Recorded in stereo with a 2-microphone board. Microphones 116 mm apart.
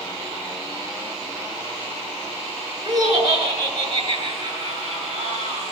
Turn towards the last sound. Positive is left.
turn(degrees=-40)  # may be behind; listen again after turning